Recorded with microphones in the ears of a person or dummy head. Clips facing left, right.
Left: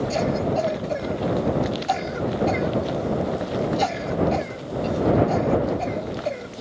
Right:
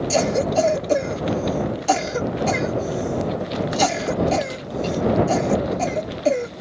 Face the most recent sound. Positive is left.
turn(degrees=-50)  # may be behind; listen again after turning